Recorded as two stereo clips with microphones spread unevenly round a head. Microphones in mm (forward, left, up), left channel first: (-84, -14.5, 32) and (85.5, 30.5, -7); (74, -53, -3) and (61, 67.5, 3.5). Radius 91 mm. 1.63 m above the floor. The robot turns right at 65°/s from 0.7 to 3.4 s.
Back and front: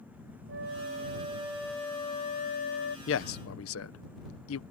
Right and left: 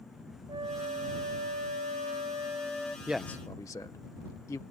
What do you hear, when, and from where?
0.5 s a flute: 45° left; by 3.0 s 165° right
3.1 s a man speaking: straight behind; by 4.6 s 160° right